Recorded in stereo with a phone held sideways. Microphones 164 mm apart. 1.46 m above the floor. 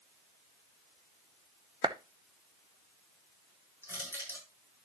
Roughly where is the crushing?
Centre.